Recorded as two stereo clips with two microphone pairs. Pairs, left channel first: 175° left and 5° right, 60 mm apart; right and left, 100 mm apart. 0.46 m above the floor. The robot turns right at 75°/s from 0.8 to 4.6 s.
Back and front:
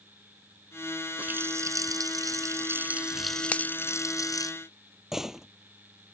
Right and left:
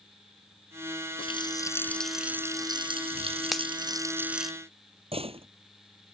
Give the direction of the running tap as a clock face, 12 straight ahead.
2 o'clock.